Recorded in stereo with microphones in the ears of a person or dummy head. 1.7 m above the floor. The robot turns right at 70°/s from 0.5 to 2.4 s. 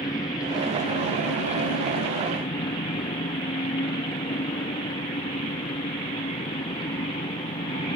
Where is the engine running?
25° left; by 8.0 s 160° left.